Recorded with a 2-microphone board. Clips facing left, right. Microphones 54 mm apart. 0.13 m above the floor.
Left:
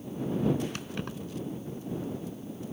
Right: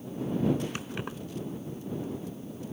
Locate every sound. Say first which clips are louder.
0.8 s keys jangling: right 1 dB; 15° right (ahead or behind)